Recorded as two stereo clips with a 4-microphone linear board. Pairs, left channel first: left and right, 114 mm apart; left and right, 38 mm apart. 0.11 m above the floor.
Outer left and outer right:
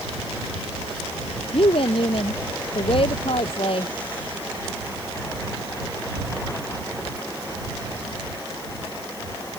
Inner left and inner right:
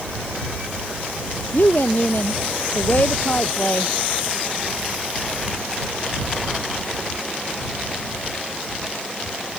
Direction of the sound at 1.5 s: 55° left (ahead or behind).